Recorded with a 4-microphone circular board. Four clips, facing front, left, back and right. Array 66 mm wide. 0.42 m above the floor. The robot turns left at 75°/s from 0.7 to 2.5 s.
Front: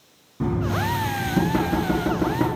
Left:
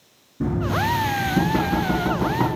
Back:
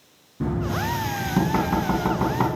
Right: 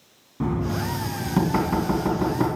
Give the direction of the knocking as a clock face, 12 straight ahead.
2 o'clock.